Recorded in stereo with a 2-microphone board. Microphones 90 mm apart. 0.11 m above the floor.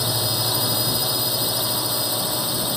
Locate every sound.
0.0 s a drone: centre (ahead or behind)